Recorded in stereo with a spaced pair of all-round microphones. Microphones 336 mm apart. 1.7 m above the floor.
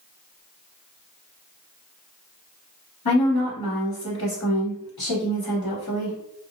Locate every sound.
3.0 s a woman speaking: 85° left, 1.3 m